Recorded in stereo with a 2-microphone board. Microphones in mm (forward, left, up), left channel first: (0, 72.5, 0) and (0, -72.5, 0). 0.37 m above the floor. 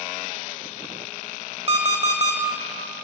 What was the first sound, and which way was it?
An alarm clock, 40° right (ahead or behind).